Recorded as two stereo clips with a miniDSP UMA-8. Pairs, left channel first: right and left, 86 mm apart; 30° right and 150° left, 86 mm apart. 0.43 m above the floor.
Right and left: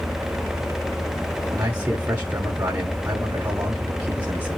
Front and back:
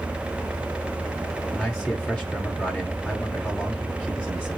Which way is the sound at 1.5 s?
35° left.